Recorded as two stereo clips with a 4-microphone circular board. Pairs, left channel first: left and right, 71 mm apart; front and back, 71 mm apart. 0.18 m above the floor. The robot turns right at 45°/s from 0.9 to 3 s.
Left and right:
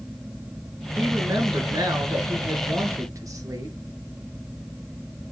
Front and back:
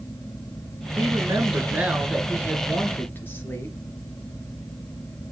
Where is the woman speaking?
150° right, 3 m; by 3.8 s 60° right, 3 m.